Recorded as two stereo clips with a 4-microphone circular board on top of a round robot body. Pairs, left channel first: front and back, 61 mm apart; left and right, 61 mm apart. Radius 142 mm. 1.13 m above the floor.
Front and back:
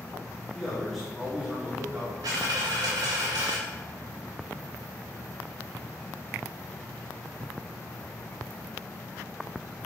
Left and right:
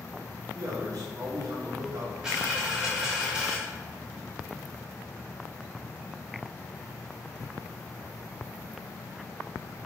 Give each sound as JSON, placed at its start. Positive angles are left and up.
{"t": 0.5, "sound": "a man speaking", "azimuth_deg": -90, "distance_m": 3.0}
{"t": 2.2, "sound": "a dropped coin", "azimuth_deg": -165, "distance_m": 0.6}